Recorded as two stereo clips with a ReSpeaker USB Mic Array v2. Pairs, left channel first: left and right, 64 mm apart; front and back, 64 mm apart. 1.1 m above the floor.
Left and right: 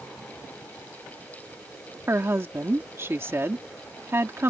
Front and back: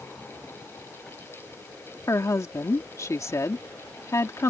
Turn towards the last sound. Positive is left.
turn(degrees=-40)